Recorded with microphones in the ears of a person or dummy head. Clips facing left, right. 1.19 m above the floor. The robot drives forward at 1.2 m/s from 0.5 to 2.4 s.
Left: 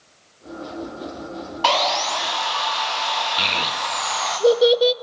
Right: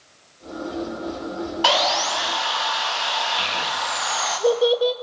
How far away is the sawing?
About 0.8 m.